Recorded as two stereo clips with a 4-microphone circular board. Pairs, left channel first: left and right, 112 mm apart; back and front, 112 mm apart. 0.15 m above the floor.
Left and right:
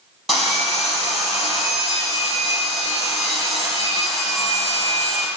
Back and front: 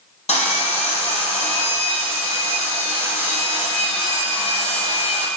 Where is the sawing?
Straight behind, 3.5 m.